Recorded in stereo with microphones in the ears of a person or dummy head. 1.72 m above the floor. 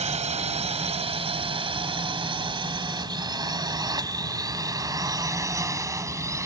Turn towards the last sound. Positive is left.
turn(degrees=-15)  # may be behind; listen again after turning